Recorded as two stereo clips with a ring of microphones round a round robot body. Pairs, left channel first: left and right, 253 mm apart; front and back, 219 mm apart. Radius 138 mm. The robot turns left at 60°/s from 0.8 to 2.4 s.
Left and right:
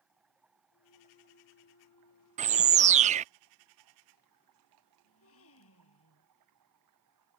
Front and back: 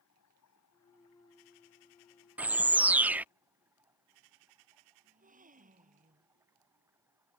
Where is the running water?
5° right; by 7.4 s 100° right.